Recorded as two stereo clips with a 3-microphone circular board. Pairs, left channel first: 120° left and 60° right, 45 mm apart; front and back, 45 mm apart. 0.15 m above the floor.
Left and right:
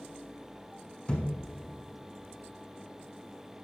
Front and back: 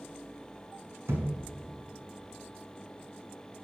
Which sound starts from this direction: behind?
A thud, at 1.1 s.